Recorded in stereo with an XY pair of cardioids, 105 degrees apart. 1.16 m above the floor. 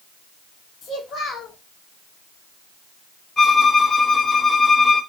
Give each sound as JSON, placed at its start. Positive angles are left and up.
{"t": 0.8, "sound": "a child speaking", "azimuth_deg": 55, "distance_m": 1.7}
{"t": 3.4, "sound": "a violin", "azimuth_deg": 35, "distance_m": 1.5}